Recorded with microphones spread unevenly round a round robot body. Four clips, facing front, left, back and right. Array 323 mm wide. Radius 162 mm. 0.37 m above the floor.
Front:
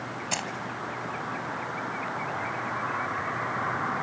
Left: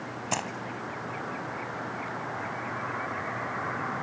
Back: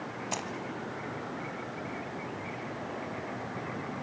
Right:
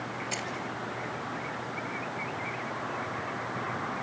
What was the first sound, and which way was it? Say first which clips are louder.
Keys jangling: left 9 dB, front 3 dB; 65° left.